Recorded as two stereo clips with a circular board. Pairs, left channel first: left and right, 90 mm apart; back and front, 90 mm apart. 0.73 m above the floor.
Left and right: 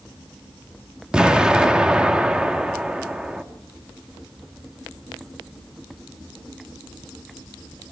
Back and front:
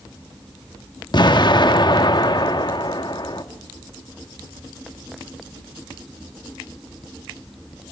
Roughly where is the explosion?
Behind.